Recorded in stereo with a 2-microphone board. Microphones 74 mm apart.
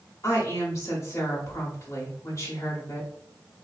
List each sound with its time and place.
0.2 s a woman speaking: 45° left (ahead or behind), 1.4 m